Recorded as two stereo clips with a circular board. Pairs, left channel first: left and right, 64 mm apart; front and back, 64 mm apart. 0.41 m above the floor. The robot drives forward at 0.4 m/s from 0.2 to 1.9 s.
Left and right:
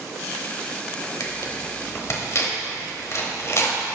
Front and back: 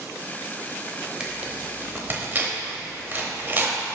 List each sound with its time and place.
1.2 s tearing paper: 110° left, 0.9 m; by 4.0 s 125° left, 1.0 m